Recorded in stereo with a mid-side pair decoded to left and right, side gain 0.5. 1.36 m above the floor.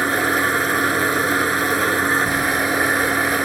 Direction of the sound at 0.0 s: 15° right.